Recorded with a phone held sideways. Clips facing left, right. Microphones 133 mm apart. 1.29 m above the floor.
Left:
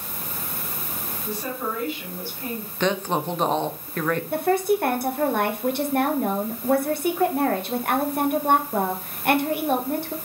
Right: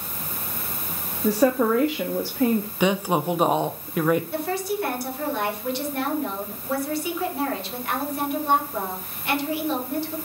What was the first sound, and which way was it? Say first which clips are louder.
A woman speaking: right 11 dB; 75° right (ahead or behind).